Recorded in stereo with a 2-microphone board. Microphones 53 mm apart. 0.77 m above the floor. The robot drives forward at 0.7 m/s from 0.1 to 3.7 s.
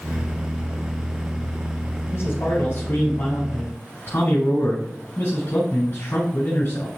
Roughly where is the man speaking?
Left.